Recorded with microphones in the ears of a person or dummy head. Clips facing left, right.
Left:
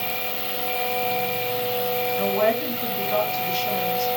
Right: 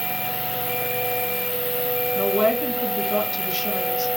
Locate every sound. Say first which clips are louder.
0.0 s an insect: right 1 dB; 70° right (ahead or behind), 1.6 m
2.1 s a woman speaking: right 2 dB; 50° right (ahead or behind), 1.6 m